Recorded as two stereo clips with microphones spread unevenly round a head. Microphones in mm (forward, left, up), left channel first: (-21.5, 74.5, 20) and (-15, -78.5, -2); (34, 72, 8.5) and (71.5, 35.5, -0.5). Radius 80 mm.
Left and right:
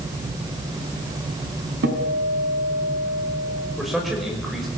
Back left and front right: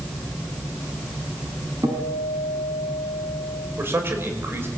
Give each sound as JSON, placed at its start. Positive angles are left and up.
{"t": 1.8, "sound": "a guitar", "azimuth_deg": -100, "distance_m": 3.5}
{"t": 3.8, "sound": "a man speaking", "azimuth_deg": 5, "distance_m": 5.5}